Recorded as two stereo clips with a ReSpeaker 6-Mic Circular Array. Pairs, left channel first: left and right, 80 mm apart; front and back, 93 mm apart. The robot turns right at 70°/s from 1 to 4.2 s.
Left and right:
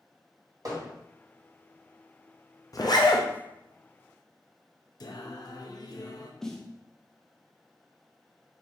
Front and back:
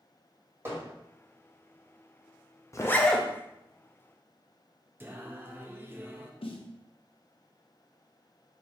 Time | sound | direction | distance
0.7 | hammering | 120° right | 2 m
2.7 | a zipper | 50° left | 0.6 m
5.0 | singing | 115° left | 0.5 m
6.4 | a snare drum | 5° left | 0.6 m